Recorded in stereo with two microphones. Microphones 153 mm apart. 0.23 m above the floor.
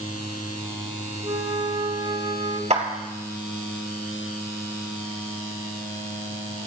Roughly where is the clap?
Right.